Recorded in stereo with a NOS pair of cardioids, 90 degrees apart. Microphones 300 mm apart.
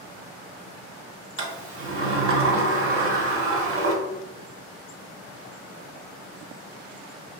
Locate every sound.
1.4 s a sliding door: 45° right, 1.0 m